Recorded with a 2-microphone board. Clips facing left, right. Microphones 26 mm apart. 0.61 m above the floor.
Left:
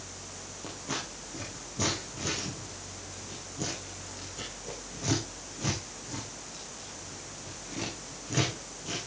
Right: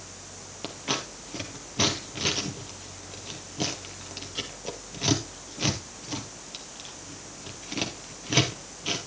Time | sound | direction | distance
0.6 | scissors | 65° right (ahead or behind) | 4 m